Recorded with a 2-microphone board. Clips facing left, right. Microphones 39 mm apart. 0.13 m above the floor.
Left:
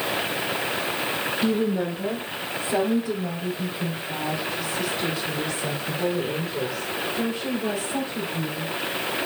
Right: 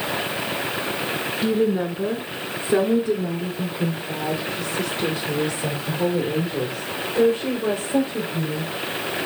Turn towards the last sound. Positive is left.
turn(degrees=-40)  # may be behind; listen again after turning